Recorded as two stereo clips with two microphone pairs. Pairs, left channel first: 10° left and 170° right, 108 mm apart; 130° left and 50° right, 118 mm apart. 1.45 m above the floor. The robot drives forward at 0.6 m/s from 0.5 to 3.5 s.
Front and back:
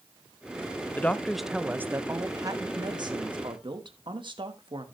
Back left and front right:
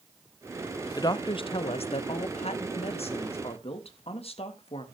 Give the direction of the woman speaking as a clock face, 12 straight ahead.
9 o'clock.